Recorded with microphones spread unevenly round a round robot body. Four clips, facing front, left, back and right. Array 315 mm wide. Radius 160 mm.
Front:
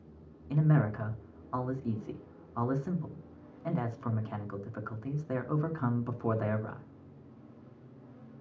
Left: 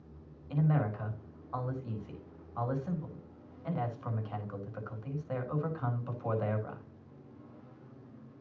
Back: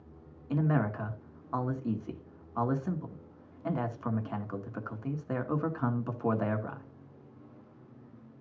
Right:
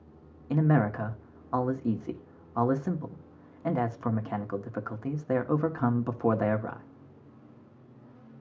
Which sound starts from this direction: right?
A man speaking, at 0.5 s.